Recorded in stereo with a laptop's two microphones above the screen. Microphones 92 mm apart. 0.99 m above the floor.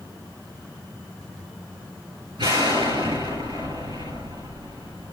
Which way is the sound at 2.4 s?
65° right (ahead or behind).